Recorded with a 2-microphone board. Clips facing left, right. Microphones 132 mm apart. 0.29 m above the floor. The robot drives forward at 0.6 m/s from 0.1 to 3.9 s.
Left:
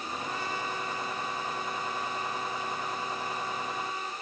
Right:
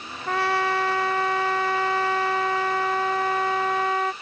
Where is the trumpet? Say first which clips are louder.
Right 15 dB; 70° right (ahead or behind); by 4.1 s 75° right (ahead or behind).